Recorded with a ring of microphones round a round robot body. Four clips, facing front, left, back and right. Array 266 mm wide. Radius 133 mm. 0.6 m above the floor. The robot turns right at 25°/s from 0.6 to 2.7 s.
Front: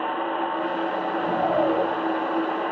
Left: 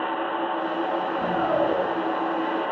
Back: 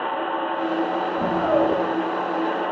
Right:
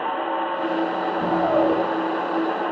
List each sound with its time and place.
1.2 s a shout: 160° right, 6.5 m; by 1.8 s 145° right, 6.5 m